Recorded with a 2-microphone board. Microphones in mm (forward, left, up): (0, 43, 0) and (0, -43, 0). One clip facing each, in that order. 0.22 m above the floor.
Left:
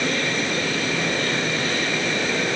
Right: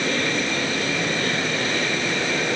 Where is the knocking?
I don't hear knocking.